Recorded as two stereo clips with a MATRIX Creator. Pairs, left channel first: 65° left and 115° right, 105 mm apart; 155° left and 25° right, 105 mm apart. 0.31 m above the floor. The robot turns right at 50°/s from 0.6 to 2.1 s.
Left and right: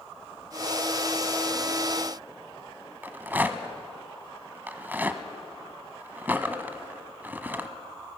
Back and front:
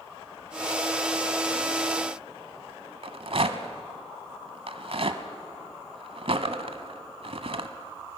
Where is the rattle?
40° right, 1.1 m.